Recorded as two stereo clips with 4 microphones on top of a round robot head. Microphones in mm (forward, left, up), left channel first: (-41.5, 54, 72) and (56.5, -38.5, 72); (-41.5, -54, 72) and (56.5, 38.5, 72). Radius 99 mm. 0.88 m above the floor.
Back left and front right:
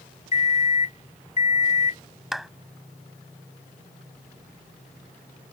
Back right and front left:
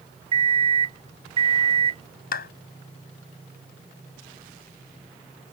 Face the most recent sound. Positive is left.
turn(degrees=-130)